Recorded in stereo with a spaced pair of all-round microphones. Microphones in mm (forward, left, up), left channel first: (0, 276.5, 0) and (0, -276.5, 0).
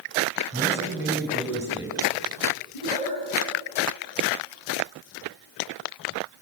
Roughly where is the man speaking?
Centre.